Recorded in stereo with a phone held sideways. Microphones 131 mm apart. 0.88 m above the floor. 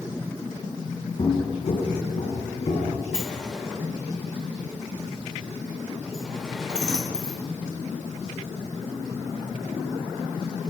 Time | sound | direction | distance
1.2 | footsteps | 40° left (ahead or behind) | 1.7 m
3.1 | a sliding door | 5° right (ahead or behind) | 3 m